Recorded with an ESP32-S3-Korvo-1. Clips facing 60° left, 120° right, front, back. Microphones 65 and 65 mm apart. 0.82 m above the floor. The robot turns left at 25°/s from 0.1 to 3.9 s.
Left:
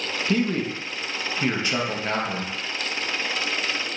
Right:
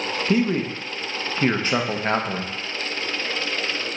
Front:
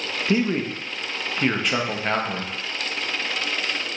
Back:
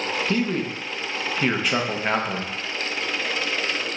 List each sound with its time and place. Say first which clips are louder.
0.3 s a man speaking: right 2 dB, front 5 dB; 60° right, 0.7 m; by 2.5 s 115° right, 0.7 m